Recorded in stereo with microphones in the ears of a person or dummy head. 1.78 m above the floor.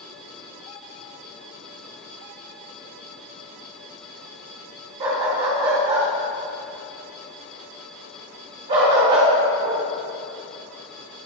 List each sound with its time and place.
5.0 s a dog barking: 20° right (ahead or behind), 1.6 m